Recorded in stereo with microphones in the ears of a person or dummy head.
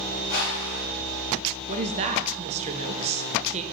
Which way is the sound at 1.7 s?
40° right (ahead or behind).